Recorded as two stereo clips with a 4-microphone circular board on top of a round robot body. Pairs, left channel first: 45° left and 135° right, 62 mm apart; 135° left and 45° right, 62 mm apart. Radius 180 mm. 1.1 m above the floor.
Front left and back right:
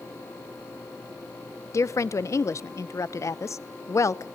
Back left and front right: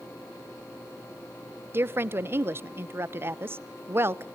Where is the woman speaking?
10° left, 0.8 m.